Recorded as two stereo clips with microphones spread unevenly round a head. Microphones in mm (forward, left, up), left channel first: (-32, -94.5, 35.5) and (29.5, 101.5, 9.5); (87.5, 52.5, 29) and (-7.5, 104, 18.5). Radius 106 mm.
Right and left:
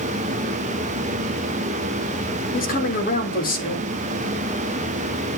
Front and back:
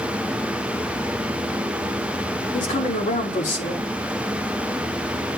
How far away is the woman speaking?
About 2.5 m.